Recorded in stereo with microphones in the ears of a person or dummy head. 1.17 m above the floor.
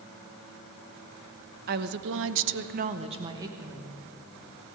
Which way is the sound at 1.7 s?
50° right (ahead or behind).